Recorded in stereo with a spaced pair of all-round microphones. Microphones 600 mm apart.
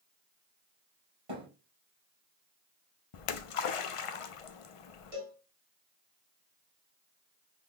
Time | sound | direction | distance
1.3 | a thud | 60° right (ahead or behind) | 3 m
3.1 | a splash | 60° left (ahead or behind) | 0.5 m
5.1 | a cowbell | 75° right (ahead or behind) | 1.6 m